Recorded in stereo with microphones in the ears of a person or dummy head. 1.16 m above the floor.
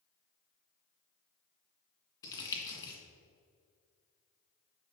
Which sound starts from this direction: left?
Crumpling, at 2.2 s.